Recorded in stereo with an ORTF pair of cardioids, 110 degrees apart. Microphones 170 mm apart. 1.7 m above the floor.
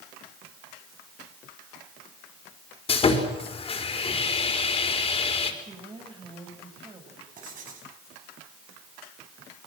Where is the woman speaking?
30° right, 8.5 m.